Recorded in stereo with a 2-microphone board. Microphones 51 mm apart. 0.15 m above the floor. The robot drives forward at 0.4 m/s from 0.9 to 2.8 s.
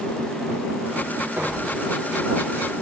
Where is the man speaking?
I don't hear a man speaking.